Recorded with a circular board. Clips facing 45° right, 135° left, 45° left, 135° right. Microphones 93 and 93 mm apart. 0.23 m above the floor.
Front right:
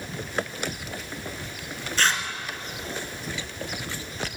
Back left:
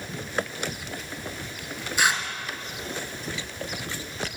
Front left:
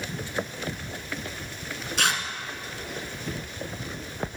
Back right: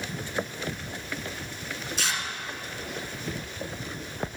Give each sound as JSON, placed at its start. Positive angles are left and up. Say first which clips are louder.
{"t": 2.0, "sound": "tearing paper", "louder": "back left 1 dB, front left 6 dB", "azimuth_deg": 55, "distance_m": 1.0}